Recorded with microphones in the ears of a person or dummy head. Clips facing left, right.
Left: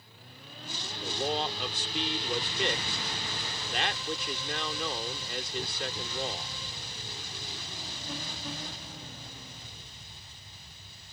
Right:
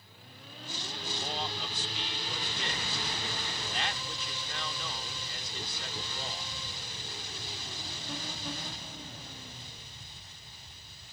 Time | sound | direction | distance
1.0 | a man speaking | 55° left (ahead or behind) | ?